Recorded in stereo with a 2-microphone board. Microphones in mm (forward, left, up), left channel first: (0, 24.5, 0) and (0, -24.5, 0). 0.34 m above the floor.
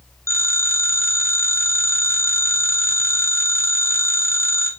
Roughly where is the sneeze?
I don't hear a sneeze.